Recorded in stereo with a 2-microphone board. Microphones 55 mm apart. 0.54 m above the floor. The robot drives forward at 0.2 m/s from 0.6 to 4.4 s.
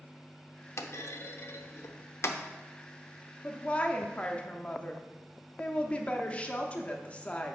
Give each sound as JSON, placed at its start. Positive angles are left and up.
{"t": 0.8, "sound": "a clunk", "side_deg": 60, "distance_m": 0.5}
{"t": 3.4, "sound": "a woman speaking", "side_deg": 25, "distance_m": 0.7}